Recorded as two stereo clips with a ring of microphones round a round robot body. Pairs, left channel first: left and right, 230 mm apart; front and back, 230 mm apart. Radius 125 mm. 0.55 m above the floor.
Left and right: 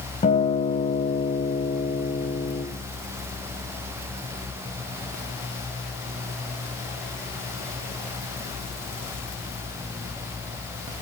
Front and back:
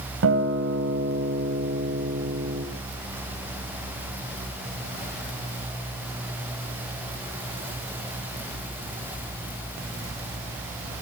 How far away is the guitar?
About 2.5 m.